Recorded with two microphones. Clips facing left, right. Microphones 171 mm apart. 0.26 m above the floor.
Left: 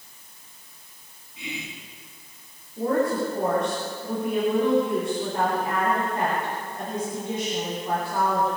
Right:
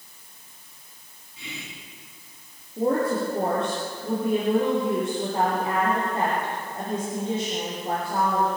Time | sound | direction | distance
1.4 | whispering | 20° left (ahead or behind) | 3 m
2.8 | a woman speaking | 30° right (ahead or behind) | 7 m